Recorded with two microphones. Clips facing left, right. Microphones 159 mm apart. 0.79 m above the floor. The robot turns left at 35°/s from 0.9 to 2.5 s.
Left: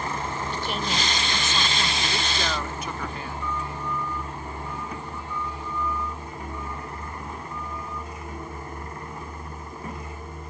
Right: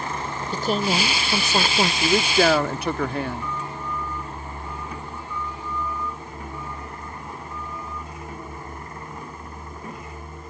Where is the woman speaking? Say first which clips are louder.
Right 10 dB; 45° right; by 1.9 s 80° right.